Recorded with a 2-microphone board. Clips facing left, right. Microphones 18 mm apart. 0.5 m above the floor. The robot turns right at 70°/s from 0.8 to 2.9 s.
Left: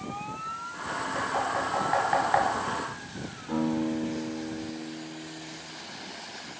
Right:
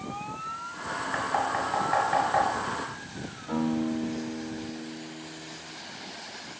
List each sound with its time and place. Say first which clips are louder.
1.1 s knocking: right 1 dB; 45° right (ahead or behind), 0.9 m; by 2.5 s 25° left (ahead or behind), 0.9 m
3.5 s a guitar: even; 40° right (ahead or behind), 1.7 m